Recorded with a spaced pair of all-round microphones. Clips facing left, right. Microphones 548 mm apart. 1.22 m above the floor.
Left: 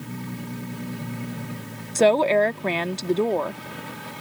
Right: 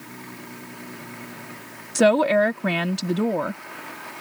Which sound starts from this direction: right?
A woman speaking, at 1.9 s.